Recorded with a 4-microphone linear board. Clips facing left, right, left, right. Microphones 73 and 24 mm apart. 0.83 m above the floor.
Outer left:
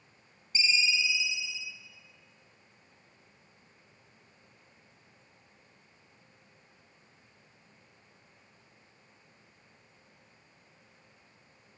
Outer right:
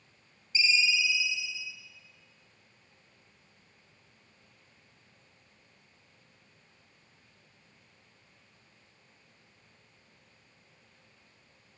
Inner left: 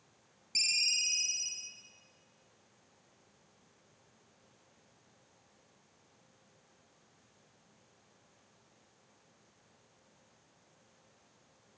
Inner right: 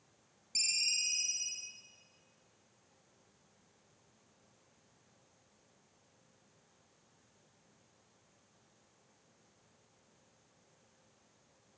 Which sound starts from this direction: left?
A ringtone, at 0.6 s.